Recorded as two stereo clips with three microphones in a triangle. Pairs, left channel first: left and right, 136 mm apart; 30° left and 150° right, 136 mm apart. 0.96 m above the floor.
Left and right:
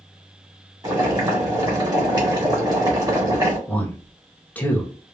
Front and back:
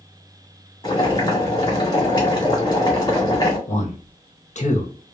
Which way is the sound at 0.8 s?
30° right.